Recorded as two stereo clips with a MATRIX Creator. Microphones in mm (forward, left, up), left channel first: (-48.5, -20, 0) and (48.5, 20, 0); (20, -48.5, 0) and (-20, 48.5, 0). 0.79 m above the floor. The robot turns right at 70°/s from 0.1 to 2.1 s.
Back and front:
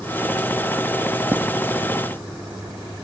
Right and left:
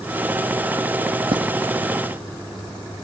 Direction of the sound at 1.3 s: 90° left.